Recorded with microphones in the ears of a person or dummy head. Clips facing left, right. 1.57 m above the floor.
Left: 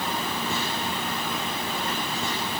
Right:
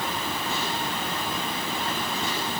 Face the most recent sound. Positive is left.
No sound to turn to.